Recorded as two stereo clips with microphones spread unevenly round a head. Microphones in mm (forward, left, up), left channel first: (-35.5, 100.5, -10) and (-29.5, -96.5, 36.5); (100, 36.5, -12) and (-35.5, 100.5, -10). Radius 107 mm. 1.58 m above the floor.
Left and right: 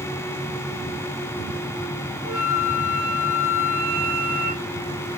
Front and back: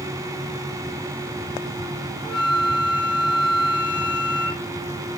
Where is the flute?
60° left, 5 m.